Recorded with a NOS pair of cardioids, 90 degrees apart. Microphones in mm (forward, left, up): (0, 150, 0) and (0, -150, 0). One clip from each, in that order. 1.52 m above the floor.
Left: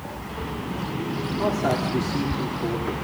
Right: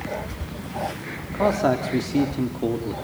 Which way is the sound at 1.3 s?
35° right.